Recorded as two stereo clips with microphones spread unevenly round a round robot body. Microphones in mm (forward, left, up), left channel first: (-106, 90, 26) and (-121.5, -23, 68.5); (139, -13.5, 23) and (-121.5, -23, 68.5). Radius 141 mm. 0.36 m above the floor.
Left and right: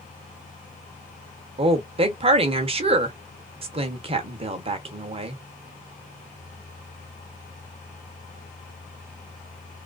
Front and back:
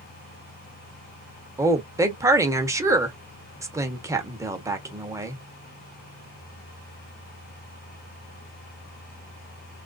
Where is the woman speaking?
90° right, 1.1 m.